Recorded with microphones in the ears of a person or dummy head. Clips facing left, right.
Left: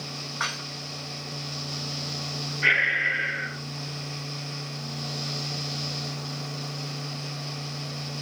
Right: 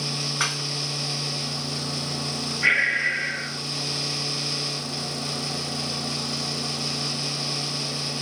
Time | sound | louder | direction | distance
0.4 | dishes clattering | right 4 dB | 40° right (ahead or behind) | 1.7 m
2.6 | breathing | right 1 dB | centre (ahead or behind) | 1.3 m